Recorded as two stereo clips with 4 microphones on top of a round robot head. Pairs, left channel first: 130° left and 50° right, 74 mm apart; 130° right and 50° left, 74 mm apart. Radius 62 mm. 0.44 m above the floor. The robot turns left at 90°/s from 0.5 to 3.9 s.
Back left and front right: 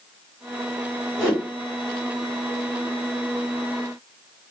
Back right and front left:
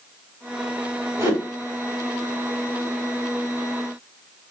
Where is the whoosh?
30° left, 2.0 m; by 1.4 s 5° left, 2.0 m.